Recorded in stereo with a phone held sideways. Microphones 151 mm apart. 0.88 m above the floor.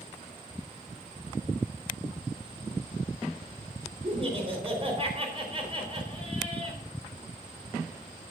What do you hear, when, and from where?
4.0 s laughter: 40° right (ahead or behind), 4 m